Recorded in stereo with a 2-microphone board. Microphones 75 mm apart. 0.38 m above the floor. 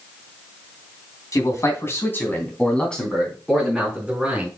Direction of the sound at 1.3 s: 45° left (ahead or behind).